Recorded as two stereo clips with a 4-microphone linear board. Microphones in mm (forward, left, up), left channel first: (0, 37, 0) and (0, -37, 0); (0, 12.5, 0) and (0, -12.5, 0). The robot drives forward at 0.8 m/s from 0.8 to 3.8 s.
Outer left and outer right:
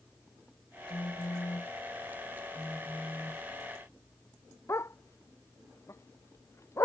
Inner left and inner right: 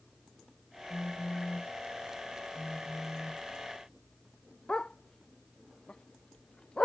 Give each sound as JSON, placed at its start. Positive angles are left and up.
{"t": 0.9, "sound": "a phone buzzing", "side_deg": 70}
{"t": 2.5, "sound": "a phone buzzing", "side_deg": 0}
{"t": 4.7, "sound": "a dog barking", "side_deg": 40}